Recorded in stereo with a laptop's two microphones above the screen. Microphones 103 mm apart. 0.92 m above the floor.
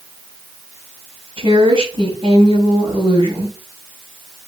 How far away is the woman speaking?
About 6 m.